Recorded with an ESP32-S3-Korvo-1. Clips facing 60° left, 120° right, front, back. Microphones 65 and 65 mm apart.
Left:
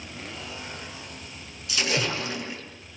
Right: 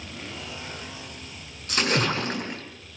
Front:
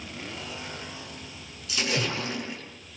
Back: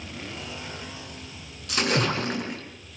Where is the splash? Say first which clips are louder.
Right 3 dB, back 4 dB; 155° right, 4 m.